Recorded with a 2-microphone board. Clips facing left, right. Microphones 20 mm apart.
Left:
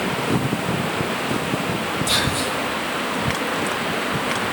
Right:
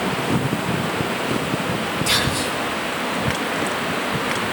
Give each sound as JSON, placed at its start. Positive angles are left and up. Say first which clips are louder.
{"t": 2.1, "sound": "whispering", "louder": "right 1 dB", "side_deg": -80, "distance_m": 8.5}